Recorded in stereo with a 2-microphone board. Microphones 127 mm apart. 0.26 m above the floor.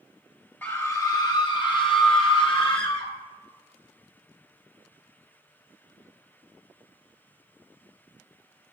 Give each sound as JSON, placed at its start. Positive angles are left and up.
{"t": 0.6, "sound": "a scream", "side_deg": 15, "distance_m": 1.2}